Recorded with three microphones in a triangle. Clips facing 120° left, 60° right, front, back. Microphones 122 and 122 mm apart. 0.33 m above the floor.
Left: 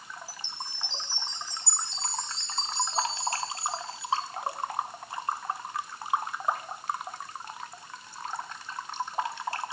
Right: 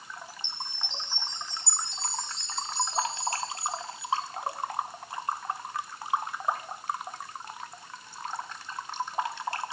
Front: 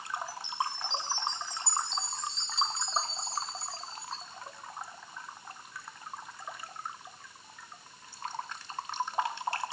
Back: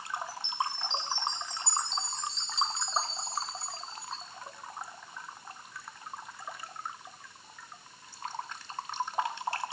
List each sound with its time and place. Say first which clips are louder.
0.3 s a chime: even, back 1 dB; 85° right, 2.5 m